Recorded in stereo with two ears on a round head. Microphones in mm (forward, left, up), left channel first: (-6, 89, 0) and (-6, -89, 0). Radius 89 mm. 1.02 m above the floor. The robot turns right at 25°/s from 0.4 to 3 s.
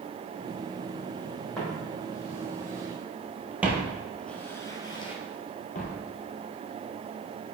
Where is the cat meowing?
I don't hear a cat meowing.